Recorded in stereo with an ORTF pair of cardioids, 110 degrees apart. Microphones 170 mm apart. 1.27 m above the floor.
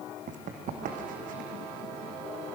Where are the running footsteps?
55° right, 4 m; by 1.5 s 65° right, 4.5 m.